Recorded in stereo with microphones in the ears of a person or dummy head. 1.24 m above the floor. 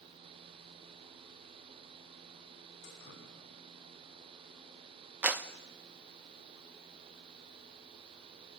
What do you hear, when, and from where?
2.8 s dripping: 65° left (ahead or behind), 6 m
5.2 s a clap: 10° right (ahead or behind), 0.8 m